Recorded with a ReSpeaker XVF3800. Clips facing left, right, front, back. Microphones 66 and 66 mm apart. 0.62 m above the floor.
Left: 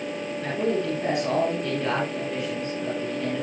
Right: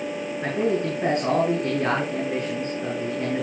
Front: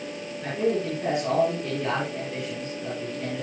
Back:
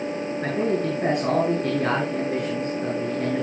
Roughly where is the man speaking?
Behind right.